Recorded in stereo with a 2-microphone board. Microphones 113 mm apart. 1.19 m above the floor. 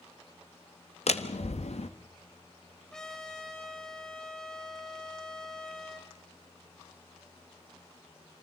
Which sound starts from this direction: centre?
A trumpet, at 2.9 s.